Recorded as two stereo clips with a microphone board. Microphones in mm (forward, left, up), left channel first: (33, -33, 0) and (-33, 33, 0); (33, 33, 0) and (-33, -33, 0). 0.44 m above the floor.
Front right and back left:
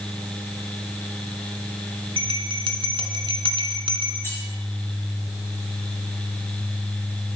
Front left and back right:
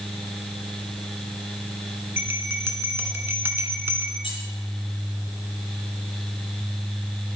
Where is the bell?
160° left, 1.2 m.